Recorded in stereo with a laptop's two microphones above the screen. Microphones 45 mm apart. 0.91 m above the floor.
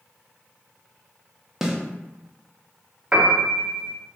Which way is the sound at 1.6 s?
10° right (ahead or behind).